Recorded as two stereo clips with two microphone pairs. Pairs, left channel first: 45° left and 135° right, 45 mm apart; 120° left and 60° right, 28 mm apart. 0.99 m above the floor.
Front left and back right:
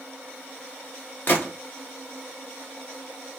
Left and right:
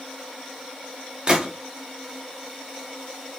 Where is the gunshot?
Straight ahead, 1.2 m.